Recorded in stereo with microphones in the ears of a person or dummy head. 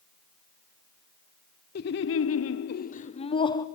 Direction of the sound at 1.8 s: 55° left (ahead or behind).